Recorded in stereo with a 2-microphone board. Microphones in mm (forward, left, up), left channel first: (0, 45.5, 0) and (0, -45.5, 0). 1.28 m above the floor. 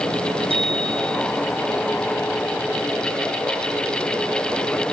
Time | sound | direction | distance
0.5 | a bicycle bell | 75° right (ahead or behind) | 6.5 m